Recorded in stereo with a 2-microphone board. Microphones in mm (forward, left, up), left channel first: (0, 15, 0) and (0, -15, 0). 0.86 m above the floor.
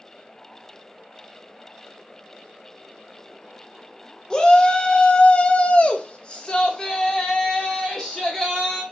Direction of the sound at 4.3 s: 30° left (ahead or behind).